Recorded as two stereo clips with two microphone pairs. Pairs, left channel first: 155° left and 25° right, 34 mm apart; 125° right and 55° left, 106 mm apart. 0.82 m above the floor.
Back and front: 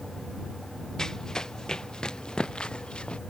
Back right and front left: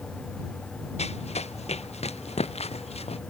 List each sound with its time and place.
1.0 s running footsteps: 130° right; by 3.2 s 140° right